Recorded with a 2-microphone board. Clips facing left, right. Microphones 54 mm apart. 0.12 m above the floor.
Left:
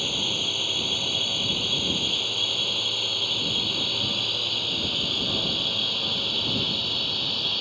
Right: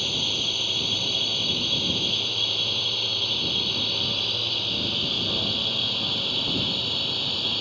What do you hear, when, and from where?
0.0 s a drone: 10° left (ahead or behind); by 7.6 s centre (ahead or behind)